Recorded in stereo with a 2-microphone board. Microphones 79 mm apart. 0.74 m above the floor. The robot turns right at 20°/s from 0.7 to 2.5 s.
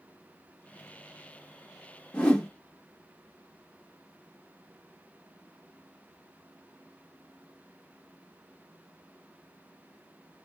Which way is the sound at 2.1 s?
15° left (ahead or behind).